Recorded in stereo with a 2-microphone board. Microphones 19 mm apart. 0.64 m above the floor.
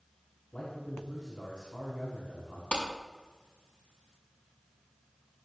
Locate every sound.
0.5 s a man speaking: 75° left (ahead or behind), 5.5 m
2.7 s a clap: 75° left (ahead or behind), 5 m